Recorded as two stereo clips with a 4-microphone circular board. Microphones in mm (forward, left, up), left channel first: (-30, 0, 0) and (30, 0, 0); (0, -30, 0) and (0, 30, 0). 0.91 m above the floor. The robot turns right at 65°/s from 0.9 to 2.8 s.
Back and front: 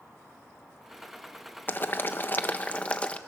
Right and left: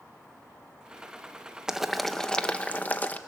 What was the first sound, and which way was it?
Boiling, 160° left.